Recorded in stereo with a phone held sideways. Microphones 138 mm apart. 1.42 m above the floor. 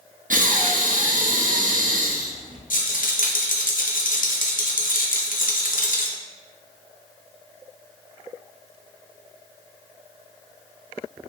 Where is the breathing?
75° right (ahead or behind), 0.6 m.